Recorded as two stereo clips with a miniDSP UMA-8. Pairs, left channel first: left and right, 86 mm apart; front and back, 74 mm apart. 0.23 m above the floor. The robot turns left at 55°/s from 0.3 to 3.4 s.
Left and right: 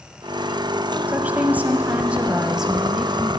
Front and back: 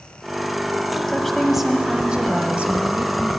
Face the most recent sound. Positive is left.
turn(degrees=160)